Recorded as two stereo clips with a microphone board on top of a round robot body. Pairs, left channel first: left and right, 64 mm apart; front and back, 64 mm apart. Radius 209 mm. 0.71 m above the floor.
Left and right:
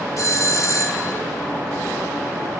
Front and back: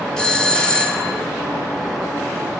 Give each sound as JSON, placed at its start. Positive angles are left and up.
{"t": 0.2, "sound": "a doorbell", "azimuth_deg": 75, "distance_m": 1.4}